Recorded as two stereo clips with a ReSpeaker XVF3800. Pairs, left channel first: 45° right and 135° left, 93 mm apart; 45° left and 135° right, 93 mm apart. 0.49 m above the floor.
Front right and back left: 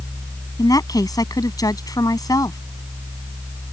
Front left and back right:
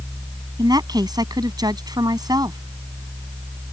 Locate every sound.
0.6 s a woman speaking: 95° right